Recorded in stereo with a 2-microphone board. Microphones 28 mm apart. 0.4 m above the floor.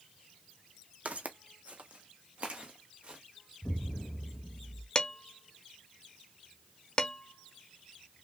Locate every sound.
1.1 s footsteps: 60° right (ahead or behind), 0.8 m; by 3.2 s 40° right (ahead or behind), 1.6 m
3.6 s an explosion: 65° left (ahead or behind), 0.5 m
5.0 s dishes clattering: 35° left (ahead or behind), 0.7 m